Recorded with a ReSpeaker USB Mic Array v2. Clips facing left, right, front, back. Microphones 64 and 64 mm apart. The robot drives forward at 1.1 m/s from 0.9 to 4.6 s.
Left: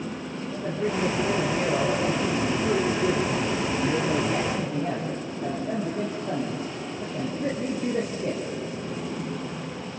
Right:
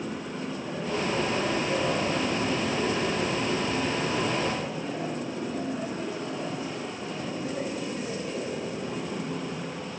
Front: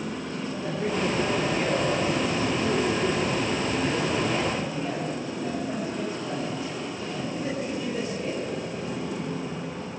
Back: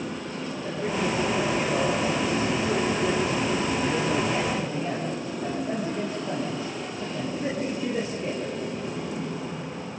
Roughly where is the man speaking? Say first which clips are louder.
Left 5 dB, front 1 dB; ahead left.